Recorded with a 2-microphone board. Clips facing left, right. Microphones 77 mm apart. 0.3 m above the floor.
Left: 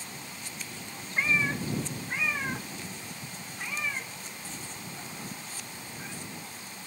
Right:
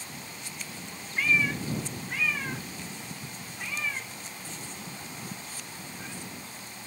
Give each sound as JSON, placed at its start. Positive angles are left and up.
{"t": 1.2, "sound": "a cat meowing", "side_deg": 30}